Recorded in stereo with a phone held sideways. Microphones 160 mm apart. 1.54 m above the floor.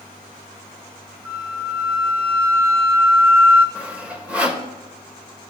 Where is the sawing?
10° right (ahead or behind), 1.3 m.